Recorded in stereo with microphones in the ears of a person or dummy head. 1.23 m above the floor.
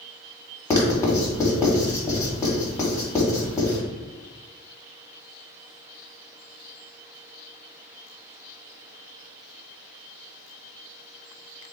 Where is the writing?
15° left (ahead or behind), 1.2 m.